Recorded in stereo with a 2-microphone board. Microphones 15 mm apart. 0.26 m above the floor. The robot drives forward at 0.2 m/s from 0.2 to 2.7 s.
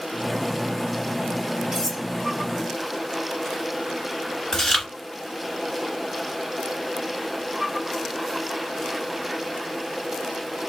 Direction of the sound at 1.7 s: 20° right (ahead or behind).